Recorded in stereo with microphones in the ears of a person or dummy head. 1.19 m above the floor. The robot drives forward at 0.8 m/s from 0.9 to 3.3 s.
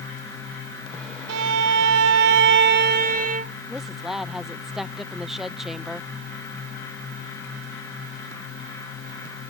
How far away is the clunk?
I don't hear a clunk.